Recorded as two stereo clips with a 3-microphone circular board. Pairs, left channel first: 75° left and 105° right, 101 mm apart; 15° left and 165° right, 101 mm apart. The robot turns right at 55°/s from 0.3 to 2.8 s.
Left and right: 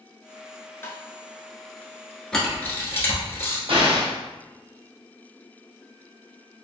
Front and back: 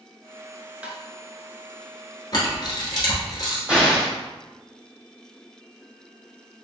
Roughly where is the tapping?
Behind left.